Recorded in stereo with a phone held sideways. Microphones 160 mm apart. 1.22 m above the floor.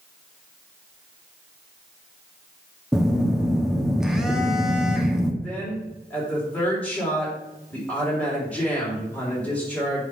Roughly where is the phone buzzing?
Centre.